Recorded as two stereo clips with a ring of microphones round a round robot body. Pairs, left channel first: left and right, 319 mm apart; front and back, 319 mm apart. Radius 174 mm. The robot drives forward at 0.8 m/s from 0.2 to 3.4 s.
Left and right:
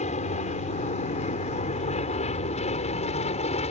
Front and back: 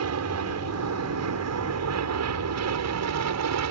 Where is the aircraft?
155° left; by 3.7 s 160° left.